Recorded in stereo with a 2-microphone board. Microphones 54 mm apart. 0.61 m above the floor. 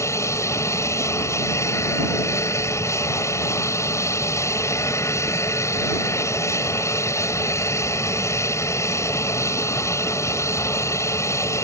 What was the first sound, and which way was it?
An aircraft, 65° left (ahead or behind).